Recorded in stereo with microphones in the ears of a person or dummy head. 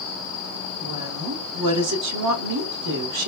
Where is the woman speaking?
65° right (ahead or behind), 1.1 m.